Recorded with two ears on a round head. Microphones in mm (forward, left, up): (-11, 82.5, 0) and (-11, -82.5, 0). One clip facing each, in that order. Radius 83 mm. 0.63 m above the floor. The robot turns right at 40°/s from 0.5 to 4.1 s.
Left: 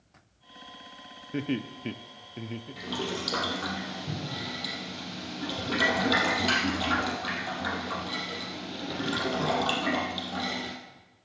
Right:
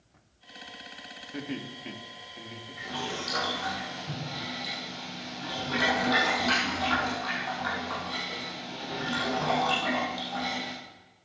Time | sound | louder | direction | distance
1.3 | laughter | left 6 dB | 35° left (ahead or behind) | 0.7 m
2.8 | boiling | left 2 dB | 85° left | 3.5 m